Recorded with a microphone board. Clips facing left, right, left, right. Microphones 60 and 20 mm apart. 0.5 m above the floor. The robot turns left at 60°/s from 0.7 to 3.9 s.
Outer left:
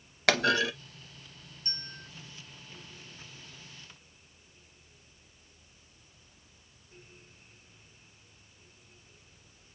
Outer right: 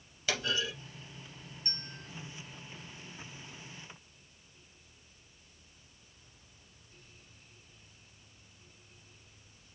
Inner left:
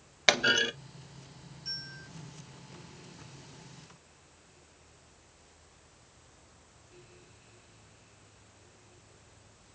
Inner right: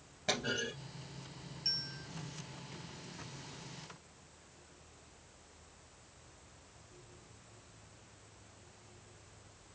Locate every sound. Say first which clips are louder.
0.3 s a clunk: outer left 8 dB, inner left 11 dB; 70° left (ahead or behind), 0.5 m
1.6 s a bell: outer left 2 dB, inner right 3 dB; 45° right (ahead or behind), 1.5 m; by 2.1 s 20° right (ahead or behind), 1.5 m